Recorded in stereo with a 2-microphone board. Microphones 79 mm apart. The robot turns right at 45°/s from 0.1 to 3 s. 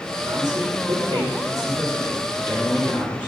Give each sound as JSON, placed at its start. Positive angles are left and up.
{"t": 0.2, "sound": "a man speaking", "azimuth_deg": -100, "distance_m": 2.5}